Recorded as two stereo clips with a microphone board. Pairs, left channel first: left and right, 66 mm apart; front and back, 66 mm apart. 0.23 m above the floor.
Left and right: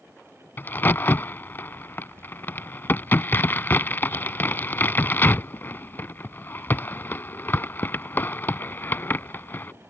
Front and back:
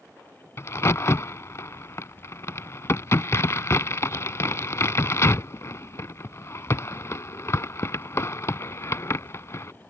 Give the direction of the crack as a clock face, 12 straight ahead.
11 o'clock.